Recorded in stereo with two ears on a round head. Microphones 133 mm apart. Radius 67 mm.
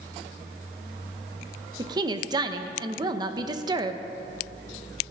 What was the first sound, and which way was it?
A woman speaking, 30° right (ahead or behind).